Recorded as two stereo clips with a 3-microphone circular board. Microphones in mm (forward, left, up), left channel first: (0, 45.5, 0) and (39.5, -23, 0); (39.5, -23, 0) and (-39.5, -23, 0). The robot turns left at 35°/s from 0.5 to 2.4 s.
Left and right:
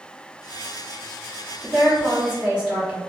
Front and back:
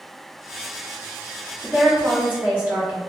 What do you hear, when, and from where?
1.6 s a woman speaking: 90° right, 1.5 m; by 3.0 s 120° right, 1.5 m